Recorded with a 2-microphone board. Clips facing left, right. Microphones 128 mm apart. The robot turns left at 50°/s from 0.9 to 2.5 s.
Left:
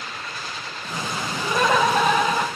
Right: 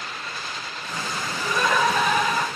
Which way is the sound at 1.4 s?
95° left.